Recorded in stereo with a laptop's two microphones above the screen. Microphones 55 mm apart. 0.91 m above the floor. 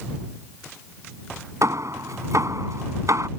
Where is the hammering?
75° right (ahead or behind).